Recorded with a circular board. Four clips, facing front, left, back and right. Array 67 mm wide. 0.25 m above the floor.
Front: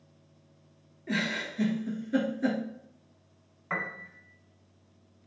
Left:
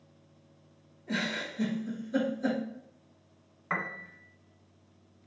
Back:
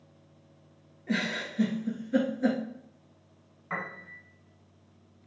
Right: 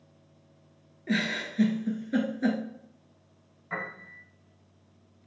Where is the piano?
70° left, 0.5 m.